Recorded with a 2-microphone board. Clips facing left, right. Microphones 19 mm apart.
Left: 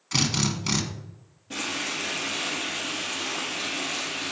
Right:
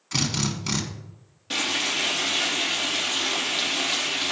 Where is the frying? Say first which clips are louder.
Right 5 dB; 60° right (ahead or behind), 5 m.